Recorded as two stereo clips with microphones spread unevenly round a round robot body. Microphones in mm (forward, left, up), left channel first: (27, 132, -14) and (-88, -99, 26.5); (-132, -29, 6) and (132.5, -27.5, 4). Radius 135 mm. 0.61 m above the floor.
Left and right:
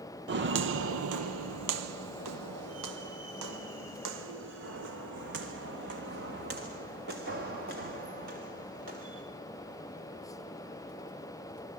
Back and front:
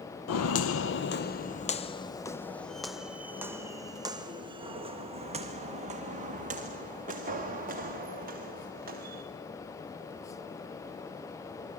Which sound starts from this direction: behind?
Footsteps, at 0.3 s.